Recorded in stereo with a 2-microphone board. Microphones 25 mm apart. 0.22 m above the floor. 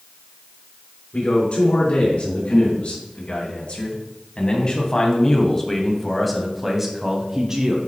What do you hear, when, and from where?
1.1 s a man speaking: 60° left (ahead or behind), 3 m; by 7.8 s 25° right (ahead or behind), 1.8 m